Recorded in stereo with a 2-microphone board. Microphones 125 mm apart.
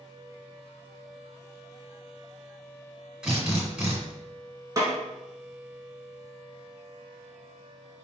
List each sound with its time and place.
3.2 s a drill: 10° right (ahead or behind), 1.6 m
4.8 s a snare drum: 25° right (ahead or behind), 1.4 m